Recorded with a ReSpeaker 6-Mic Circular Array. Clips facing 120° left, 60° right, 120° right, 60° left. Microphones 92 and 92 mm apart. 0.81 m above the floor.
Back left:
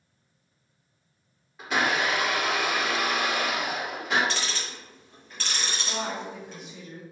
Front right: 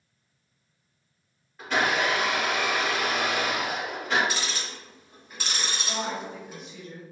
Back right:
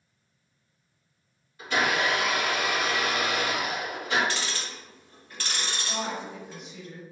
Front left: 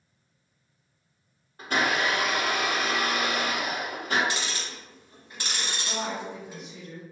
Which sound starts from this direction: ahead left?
A blender, at 1.6 s.